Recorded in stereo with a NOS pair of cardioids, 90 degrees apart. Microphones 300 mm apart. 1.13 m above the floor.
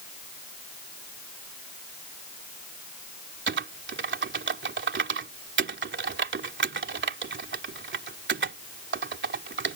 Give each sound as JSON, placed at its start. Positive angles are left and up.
{"t": 3.5, "sound": "typing on a keyboard", "azimuth_deg": -40}